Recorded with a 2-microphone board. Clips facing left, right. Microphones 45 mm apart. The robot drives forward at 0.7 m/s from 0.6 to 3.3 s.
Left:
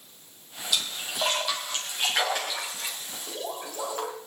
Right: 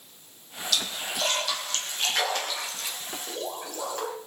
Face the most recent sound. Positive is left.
turn(degrees=10)  # may be behind; listen again after turning